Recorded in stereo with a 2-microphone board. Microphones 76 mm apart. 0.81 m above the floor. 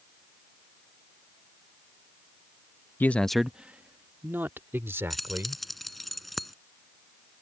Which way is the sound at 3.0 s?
30° left (ahead or behind).